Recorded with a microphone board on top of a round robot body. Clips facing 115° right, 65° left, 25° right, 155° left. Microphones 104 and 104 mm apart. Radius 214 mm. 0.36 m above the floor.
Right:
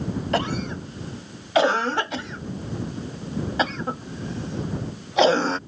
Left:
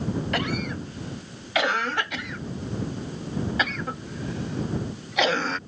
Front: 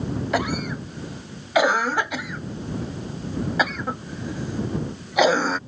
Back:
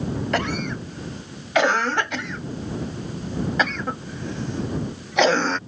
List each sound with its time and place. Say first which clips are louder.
0.3 s a cough: right 3 dB, front 2 dB; 100° right